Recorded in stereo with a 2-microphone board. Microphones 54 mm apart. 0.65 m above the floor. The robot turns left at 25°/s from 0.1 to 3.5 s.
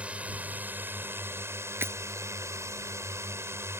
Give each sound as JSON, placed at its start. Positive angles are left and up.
{"t": 0.0, "sound": "a drone", "azimuth_deg": -25}
{"t": 1.8, "sound": "breaking glass", "side_deg": -50}